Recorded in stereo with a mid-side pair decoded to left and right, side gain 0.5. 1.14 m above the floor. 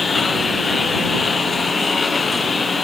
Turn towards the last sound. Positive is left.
turn(degrees=30)